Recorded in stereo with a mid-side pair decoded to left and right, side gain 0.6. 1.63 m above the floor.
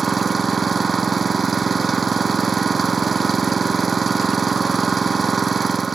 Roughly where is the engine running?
Ahead right.